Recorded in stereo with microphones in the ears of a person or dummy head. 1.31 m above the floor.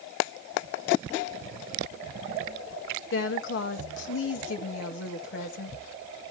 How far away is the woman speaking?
About 1.7 m.